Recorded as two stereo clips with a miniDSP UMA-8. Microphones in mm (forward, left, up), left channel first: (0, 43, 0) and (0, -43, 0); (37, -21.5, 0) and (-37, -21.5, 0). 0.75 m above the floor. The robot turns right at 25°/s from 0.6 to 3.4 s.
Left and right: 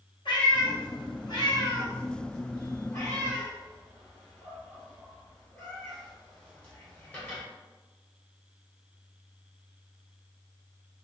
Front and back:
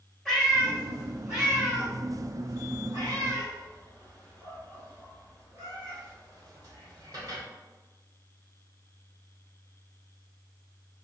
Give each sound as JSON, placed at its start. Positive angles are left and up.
{"t": 0.2, "sound": "a cat meowing", "azimuth_deg": 90, "distance_m": 1.4}